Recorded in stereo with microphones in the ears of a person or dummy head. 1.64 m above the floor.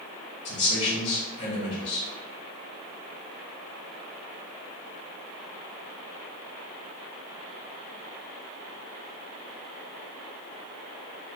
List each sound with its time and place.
0.5 s a man speaking: 35° left (ahead or behind), 1.8 m